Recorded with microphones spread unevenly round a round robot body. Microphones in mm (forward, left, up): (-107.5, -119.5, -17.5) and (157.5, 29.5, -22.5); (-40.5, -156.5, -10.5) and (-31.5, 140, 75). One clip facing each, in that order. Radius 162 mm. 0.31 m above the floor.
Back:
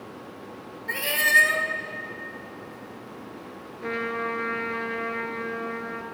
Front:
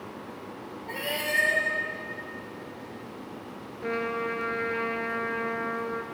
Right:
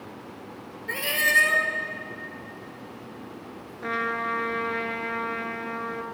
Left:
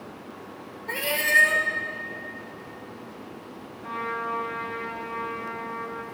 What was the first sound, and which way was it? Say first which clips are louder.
A cat meowing: back 1 dB, left 3 dB; 150° right.